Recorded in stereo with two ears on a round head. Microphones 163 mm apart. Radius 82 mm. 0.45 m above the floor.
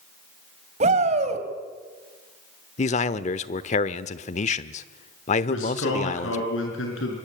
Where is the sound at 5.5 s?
75° left (ahead or behind), 5.5 m.